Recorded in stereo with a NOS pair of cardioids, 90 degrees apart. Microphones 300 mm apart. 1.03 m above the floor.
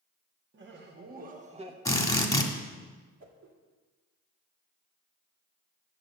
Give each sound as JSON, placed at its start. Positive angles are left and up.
{"t": 0.5, "sound": "laughter", "azimuth_deg": -40, "distance_m": 1.7}
{"t": 1.9, "sound": "a drill", "azimuth_deg": 10, "distance_m": 1.7}
{"t": 3.2, "sound": "a whoosh", "azimuth_deg": -60, "distance_m": 2.0}